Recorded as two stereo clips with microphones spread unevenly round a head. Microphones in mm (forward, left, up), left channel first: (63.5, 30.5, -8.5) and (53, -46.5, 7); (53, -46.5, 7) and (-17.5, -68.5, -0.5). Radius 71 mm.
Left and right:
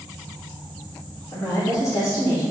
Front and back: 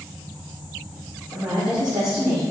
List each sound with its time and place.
1.3 s a woman speaking: 155° left, 1.3 m; by 2.4 s 150° left, 2.0 m